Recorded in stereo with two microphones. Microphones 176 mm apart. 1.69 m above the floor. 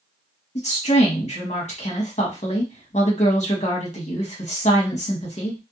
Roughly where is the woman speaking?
Left.